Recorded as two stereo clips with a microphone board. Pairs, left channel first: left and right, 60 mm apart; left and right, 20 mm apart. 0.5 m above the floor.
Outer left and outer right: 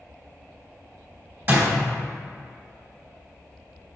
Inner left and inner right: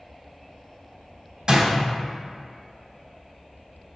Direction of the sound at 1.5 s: 40° right (ahead or behind).